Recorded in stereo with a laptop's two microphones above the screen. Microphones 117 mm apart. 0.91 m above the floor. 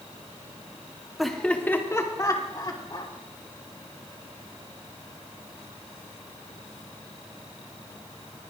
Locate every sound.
1.2 s laughter: centre (ahead or behind), 2 m; by 3.1 s 45° left (ahead or behind), 4 m